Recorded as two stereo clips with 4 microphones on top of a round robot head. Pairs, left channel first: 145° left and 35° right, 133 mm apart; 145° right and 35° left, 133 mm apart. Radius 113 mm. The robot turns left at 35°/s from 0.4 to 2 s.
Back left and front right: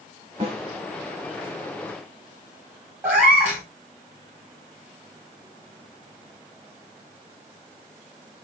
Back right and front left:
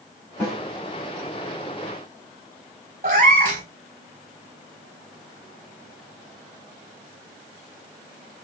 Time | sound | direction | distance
0.4 | a snare drum | 80° right | 1.5 m
3.0 | a cat meowing | 40° left | 1.1 m